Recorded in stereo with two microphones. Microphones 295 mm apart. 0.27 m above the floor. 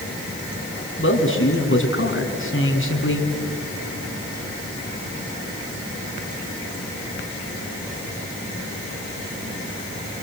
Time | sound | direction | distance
1.0 | a man speaking | 45° left (ahead or behind) | 3 m